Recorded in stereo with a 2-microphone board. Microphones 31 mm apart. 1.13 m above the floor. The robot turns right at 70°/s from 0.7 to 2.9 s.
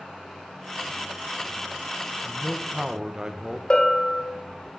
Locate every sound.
2.2 s a man speaking: 155° left, 0.6 m; by 3.6 s 160° right, 0.6 m
3.7 s a bell: 30° left (ahead or behind), 0.9 m